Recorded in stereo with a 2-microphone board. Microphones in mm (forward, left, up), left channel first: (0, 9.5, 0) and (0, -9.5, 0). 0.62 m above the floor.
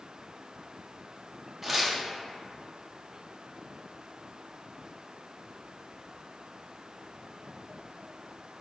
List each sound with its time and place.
1.6 s tearing paper: 15° right (ahead or behind), 0.6 m